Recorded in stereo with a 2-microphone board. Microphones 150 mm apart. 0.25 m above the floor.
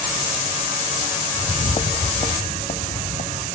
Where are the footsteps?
20° left (ahead or behind), 0.6 m; by 3.5 s 55° left (ahead or behind), 2.5 m.